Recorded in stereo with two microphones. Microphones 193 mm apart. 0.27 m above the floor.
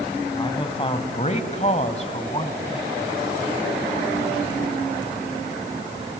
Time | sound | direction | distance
0.4 | a man speaking | 25° left (ahead or behind) | 2 m